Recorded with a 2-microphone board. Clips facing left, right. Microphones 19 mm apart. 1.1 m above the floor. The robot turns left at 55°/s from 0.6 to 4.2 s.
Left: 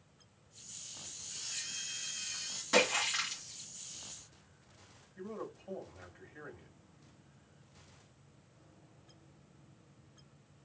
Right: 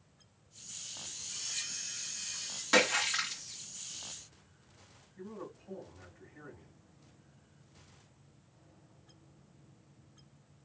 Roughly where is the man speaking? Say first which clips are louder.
Left 2 dB; left.